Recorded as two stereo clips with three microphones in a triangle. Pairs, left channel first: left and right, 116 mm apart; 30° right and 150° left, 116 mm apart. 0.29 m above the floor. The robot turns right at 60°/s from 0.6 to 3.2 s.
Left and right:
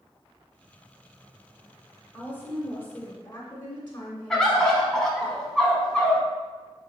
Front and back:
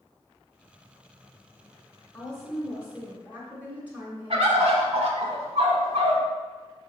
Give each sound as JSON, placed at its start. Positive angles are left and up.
{"t": 2.1, "sound": "a woman speaking", "azimuth_deg": 45, "distance_m": 0.9}
{"t": 4.3, "sound": "a bird", "azimuth_deg": 175, "distance_m": 0.7}